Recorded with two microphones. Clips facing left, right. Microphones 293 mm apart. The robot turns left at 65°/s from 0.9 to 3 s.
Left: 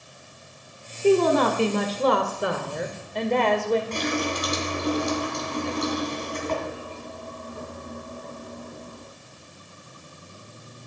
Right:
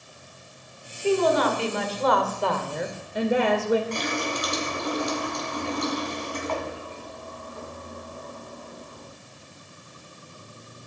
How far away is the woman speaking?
About 1.5 m.